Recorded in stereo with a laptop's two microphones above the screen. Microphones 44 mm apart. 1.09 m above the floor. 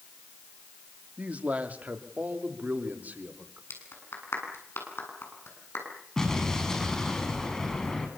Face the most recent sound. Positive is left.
turn(degrees=15)  # may be behind; listen again after turning